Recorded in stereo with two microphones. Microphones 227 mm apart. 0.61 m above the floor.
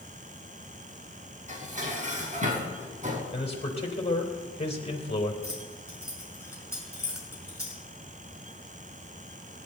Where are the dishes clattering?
35° right (ahead or behind), 4 m.